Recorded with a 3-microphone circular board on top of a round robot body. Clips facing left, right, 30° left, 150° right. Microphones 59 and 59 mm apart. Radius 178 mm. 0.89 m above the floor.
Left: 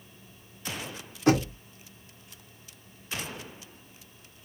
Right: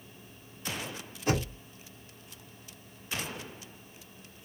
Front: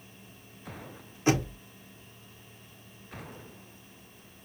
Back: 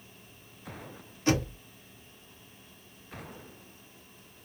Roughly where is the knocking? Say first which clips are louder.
Left 7 dB, front 1 dB; left.